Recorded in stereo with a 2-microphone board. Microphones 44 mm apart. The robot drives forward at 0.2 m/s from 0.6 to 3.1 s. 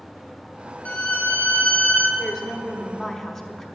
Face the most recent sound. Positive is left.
turn(degrees=15)  # may be behind; listen again after turning